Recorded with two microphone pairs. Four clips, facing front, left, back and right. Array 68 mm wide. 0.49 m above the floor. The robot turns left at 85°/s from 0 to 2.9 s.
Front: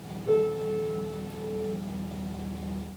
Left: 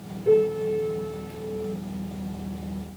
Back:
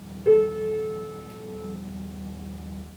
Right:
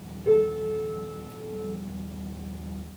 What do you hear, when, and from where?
0.2 s a piano: 175° left, 8 m; by 1.8 s 50° left, 8 m